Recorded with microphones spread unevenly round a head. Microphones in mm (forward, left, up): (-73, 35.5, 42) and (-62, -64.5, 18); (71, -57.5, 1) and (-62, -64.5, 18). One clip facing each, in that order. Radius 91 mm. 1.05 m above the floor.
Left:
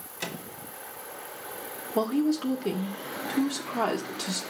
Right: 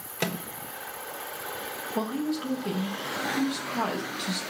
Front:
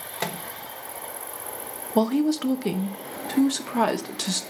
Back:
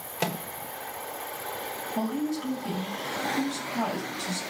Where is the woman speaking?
30° left, 0.9 m.